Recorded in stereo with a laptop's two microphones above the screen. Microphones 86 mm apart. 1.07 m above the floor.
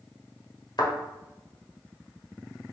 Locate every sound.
0.8 s a thud: 55° left (ahead or behind), 1.2 m